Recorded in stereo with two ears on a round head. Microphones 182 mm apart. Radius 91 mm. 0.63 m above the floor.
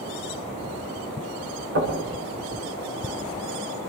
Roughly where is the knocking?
Right.